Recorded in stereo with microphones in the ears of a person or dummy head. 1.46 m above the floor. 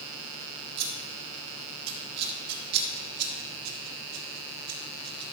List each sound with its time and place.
0.8 s scissors: 60° right (ahead or behind), 1.4 m